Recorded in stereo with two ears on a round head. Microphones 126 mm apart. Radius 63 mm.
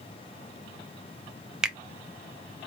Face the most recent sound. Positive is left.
turn(degrees=-5)  # may be behind; listen again after turning